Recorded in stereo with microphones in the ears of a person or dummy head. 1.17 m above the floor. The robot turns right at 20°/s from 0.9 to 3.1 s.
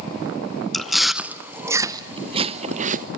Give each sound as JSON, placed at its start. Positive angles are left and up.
{"t": 0.7, "sound": "chewing", "side_deg": 0, "distance_m": 0.6}